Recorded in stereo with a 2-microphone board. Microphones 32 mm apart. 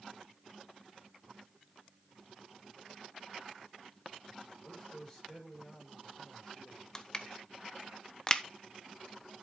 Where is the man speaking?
10° left (ahead or behind), 6.5 m; by 6.8 s 20° left (ahead or behind), 5.5 m.